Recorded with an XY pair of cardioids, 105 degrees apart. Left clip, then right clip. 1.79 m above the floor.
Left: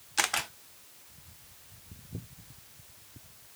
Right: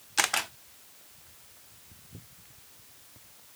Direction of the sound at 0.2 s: 15° right.